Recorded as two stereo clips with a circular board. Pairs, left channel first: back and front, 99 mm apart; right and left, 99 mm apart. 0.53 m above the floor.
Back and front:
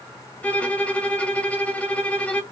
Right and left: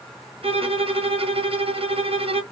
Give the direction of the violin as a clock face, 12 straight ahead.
9 o'clock.